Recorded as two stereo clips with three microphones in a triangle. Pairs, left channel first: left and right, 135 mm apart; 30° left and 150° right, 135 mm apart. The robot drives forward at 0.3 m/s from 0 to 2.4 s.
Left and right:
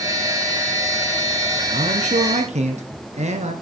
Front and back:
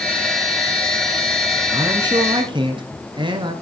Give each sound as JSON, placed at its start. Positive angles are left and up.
{"t": 1.7, "sound": "a man speaking", "azimuth_deg": -95, "distance_m": 1.9}